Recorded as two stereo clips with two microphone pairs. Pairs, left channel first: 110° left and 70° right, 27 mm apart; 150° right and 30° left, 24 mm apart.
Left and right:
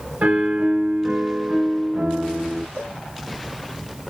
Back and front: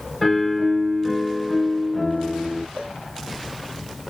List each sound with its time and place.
0.2 s a piano: 50° right, 1.3 m
2.8 s a cowbell: 55° left, 2 m